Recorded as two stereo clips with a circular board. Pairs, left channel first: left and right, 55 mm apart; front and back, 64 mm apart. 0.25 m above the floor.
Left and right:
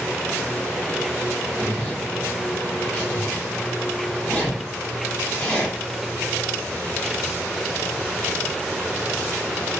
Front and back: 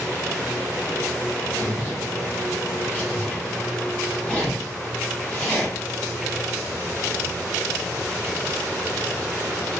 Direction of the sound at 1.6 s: 35° left.